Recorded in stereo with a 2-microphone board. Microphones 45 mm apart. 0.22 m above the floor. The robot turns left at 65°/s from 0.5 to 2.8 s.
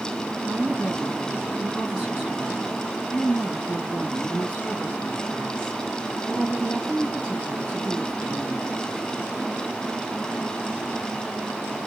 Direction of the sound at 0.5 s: 55° right.